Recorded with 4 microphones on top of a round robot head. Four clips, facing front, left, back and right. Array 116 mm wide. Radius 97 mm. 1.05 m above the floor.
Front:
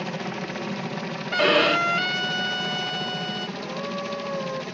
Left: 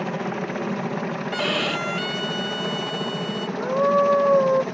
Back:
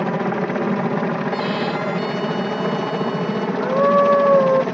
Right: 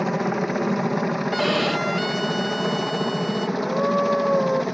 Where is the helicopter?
165° right; by 4.7 s 170° right.